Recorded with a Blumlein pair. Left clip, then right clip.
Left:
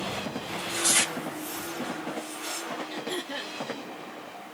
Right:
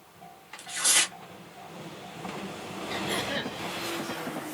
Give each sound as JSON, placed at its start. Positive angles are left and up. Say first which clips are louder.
{"t": 0.5, "sound": "tearing paper", "louder": "even", "azimuth_deg": -5, "distance_m": 1.6}
{"t": 2.9, "sound": "throat clearing", "louder": "right 3 dB", "azimuth_deg": -70, "distance_m": 1.3}